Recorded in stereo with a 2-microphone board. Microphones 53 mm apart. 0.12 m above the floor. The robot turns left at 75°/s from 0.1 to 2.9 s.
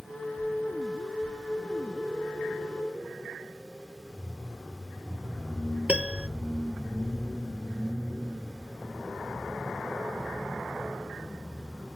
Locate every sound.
5.9 s a piano: 20° right (ahead or behind)